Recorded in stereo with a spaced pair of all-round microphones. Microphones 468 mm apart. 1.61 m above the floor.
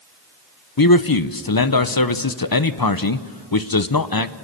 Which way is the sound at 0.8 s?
45° left (ahead or behind).